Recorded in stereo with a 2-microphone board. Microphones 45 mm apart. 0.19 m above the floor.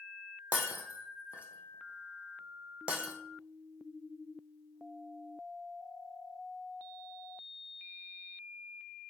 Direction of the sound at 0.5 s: 25° right (ahead or behind).